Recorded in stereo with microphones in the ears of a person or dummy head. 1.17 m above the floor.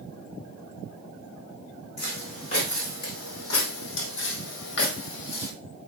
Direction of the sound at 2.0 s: 45° left (ahead or behind).